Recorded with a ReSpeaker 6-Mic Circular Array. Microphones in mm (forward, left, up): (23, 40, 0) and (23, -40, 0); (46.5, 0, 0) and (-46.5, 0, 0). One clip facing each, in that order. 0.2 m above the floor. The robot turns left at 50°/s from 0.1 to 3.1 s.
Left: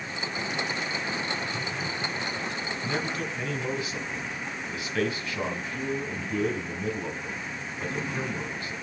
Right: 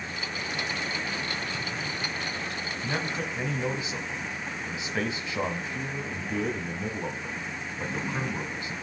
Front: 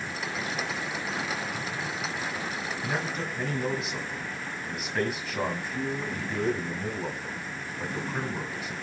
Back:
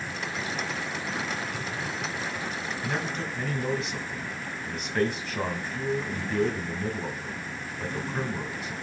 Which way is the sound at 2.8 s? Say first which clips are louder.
Even, even; 70° right.